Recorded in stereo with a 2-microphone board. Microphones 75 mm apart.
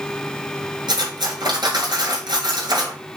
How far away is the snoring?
No snoring in this recording.